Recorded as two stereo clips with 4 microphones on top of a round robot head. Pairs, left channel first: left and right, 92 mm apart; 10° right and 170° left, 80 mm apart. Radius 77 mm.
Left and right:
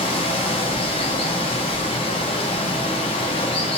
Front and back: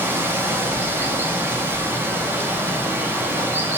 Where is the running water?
110° left, 0.8 m.